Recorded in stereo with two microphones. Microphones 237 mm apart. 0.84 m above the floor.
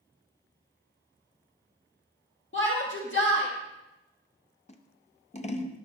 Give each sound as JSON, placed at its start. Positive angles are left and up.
{"t": 2.5, "sound": "a shout", "side_deg": 55, "distance_m": 1.7}
{"t": 4.7, "sound": "scissors", "side_deg": 30, "distance_m": 0.6}